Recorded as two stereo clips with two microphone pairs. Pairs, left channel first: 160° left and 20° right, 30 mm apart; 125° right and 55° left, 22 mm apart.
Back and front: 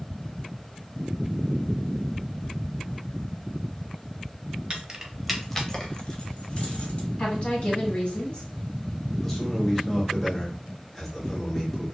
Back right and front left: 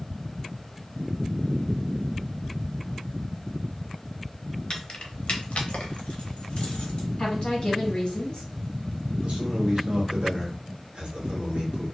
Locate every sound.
4.7 s keys jangling: 80° right, 0.7 m; by 7.1 s 165° right, 1.3 m
7.2 s a woman speaking: 160° right, 1.4 m
9.2 s a man speaking: 80° left, 1.1 m